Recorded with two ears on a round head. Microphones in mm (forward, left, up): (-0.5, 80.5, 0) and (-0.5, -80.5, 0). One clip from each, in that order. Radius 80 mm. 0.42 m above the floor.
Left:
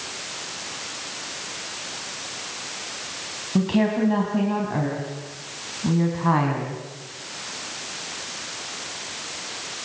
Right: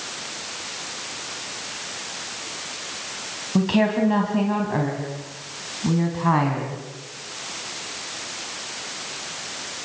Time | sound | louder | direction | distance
3.5 | a woman speaking | right 2 dB | 25° right (ahead or behind) | 3.5 m